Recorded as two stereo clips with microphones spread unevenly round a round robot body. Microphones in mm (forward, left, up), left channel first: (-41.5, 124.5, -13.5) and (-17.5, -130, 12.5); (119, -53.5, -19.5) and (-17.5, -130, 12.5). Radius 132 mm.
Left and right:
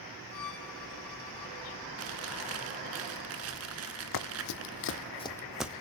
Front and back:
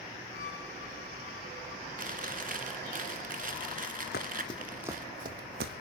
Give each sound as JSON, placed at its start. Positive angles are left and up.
{"t": 0.3, "sound": "a violin", "azimuth_deg": 90, "distance_m": 5.0}
{"t": 2.0, "sound": "chewing", "azimuth_deg": -120, "distance_m": 3.0}
{"t": 4.1, "sound": "running footsteps", "azimuth_deg": 85, "distance_m": 1.5}